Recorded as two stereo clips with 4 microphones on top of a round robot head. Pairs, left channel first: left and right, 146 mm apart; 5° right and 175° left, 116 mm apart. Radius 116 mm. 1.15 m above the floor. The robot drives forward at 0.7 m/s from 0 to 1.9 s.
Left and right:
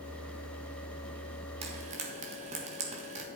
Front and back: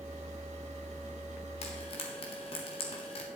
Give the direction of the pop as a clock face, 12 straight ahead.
I don't hear a pop.